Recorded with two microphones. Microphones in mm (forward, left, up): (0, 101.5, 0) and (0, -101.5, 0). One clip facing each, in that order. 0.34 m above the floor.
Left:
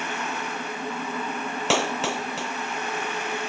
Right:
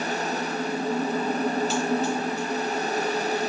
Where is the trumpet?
I don't hear a trumpet.